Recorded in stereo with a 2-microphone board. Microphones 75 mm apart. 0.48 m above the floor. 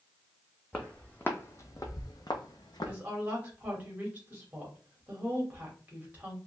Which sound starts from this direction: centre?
Footsteps, at 0.7 s.